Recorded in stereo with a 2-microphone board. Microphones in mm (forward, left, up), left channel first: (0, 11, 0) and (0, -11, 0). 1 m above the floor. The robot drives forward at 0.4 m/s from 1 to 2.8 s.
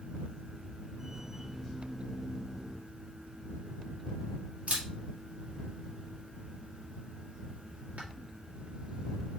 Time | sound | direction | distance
4.7 | a camera shutter | 70° right (ahead or behind) | 1.6 m